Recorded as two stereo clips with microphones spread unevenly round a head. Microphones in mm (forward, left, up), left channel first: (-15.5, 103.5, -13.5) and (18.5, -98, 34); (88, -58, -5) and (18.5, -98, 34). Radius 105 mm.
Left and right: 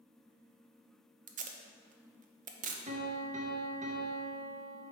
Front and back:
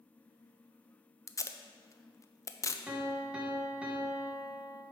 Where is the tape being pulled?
35° right, 0.6 m.